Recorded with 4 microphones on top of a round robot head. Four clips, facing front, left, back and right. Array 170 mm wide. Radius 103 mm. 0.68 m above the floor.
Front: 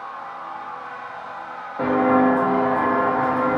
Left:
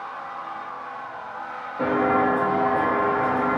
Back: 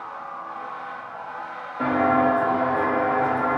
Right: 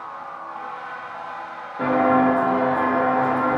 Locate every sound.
1.8 s footsteps: 5° right, 2 m; by 3.6 s 35° right, 1.6 m